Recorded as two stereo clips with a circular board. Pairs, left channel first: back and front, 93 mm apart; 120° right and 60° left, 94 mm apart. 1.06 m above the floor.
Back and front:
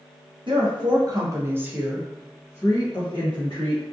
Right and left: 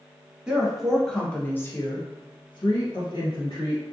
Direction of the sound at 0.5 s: 20° right.